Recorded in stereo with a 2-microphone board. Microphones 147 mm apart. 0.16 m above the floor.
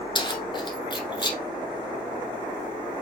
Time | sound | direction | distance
0.1 | keys jangling | 30° left (ahead or behind) | 1.5 m